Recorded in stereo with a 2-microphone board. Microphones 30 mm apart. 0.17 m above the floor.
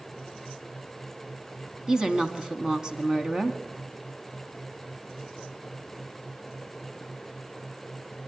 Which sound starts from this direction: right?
A woman speaking, at 1.9 s.